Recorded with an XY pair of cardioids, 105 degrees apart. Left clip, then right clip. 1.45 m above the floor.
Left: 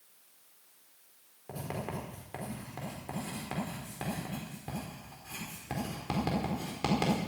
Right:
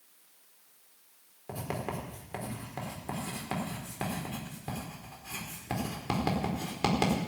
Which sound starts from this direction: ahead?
Writing, at 1.5 s.